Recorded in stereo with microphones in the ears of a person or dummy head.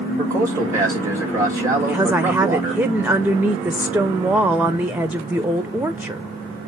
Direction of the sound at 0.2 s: 15° right (ahead or behind).